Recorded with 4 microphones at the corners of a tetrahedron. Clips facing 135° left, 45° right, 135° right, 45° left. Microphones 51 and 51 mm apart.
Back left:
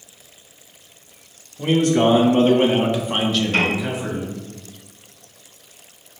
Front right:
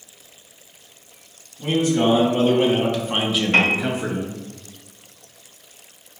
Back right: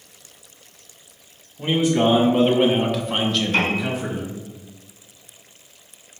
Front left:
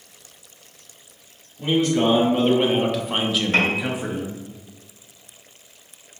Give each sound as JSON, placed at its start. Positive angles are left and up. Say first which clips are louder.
{"t": 1.6, "sound": "a man speaking", "louder": "back left 3 dB, back right 1 dB", "azimuth_deg": 150, "distance_m": 1.0}
{"t": 3.5, "sound": "a piano", "louder": "front right 6 dB, front left 2 dB", "azimuth_deg": 10, "distance_m": 1.5}